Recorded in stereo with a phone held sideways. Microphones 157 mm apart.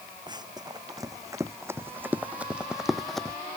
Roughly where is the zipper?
I don't hear a zipper.